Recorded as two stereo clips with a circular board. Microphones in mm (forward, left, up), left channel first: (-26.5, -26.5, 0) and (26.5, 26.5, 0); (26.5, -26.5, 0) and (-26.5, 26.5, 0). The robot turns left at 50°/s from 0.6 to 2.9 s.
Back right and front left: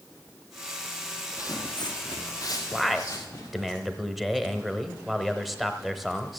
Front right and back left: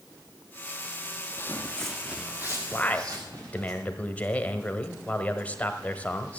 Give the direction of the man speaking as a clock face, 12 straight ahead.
1 o'clock.